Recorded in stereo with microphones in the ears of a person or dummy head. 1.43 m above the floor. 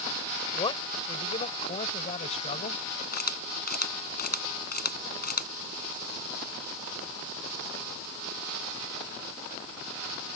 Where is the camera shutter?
40° left (ahead or behind).